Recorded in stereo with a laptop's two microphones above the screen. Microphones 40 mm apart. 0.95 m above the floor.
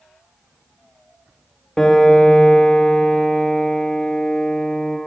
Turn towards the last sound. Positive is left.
turn(degrees=15)  # may be behind; listen again after turning